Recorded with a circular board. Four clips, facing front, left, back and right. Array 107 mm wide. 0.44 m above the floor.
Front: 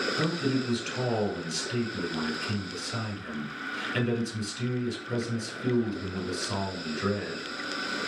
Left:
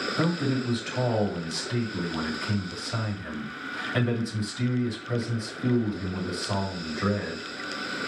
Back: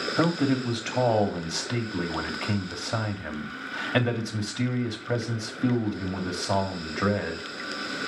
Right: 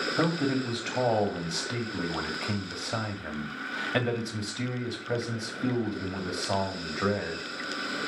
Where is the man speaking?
160° right, 2 m.